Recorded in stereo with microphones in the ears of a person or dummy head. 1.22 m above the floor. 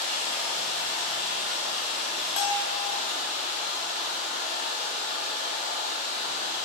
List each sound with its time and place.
0.0 s running water: 35° right (ahead or behind), 1.4 m
2.4 s a bell: 85° left, 0.7 m